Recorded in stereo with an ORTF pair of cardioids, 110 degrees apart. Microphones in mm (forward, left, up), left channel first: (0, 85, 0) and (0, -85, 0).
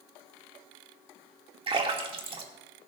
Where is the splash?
35° right, 2.5 m.